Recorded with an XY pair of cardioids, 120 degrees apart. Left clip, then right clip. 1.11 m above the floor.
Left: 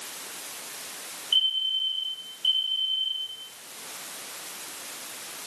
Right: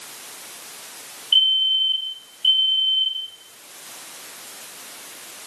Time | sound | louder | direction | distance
1.3 | a fire alarm | right 7 dB | 35° right | 9.5 m